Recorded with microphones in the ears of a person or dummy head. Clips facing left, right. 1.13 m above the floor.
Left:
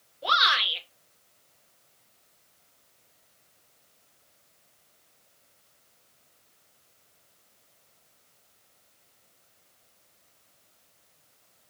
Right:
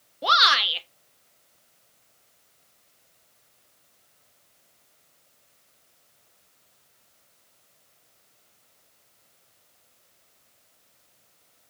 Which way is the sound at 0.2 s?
65° right (ahead or behind).